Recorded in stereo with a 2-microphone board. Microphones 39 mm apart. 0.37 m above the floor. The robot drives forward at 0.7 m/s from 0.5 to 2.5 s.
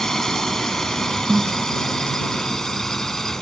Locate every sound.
0.0 s a drone: 15° left (ahead or behind); by 3.4 s 10° left (ahead or behind)
1.3 s a snare drum: 15° right (ahead or behind)